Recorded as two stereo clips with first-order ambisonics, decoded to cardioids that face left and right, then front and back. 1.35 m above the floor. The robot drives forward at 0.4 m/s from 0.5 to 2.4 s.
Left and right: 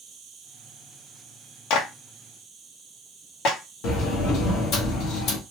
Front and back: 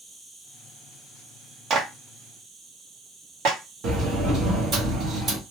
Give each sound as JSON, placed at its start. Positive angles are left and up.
{"t": 0.0, "sound": "an insect", "azimuth_deg": -90, "distance_m": 0.9}
{"t": 1.7, "sound": "a clap", "azimuth_deg": 120, "distance_m": 0.8}
{"t": 3.8, "sound": "a sliding door", "azimuth_deg": 120, "distance_m": 1.1}